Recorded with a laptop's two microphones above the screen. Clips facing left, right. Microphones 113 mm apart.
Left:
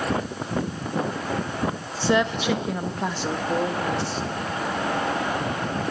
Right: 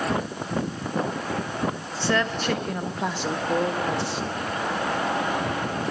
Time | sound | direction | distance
2.0 | a woman speaking | 20° left (ahead or behind) | 0.8 m